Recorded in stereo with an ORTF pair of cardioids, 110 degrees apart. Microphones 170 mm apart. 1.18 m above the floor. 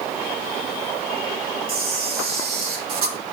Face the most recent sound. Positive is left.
turn(degrees=-65)